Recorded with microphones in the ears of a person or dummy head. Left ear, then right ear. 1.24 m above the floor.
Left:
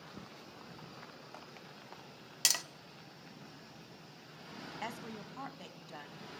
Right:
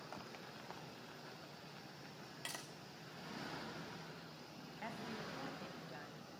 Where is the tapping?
80° left, 0.6 m.